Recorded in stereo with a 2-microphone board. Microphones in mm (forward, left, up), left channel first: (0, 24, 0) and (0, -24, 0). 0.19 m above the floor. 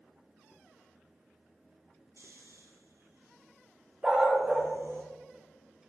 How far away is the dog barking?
About 2.5 m.